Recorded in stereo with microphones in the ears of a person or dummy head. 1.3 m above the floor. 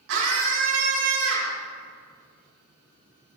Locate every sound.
0.1 s a scream: 75° right (ahead or behind), 3.5 m